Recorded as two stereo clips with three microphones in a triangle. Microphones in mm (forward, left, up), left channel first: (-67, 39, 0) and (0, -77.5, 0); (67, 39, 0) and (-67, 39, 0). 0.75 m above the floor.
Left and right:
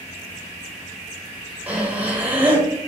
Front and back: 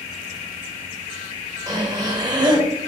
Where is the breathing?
135° right, 0.7 m.